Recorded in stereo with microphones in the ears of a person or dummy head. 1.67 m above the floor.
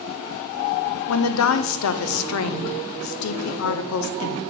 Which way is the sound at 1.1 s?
85° left.